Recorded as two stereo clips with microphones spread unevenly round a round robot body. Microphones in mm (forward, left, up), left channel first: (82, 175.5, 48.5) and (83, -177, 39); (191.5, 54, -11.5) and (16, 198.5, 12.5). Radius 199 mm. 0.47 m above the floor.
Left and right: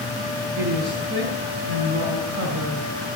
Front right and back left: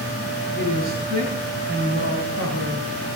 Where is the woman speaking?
150° right, 3.5 m.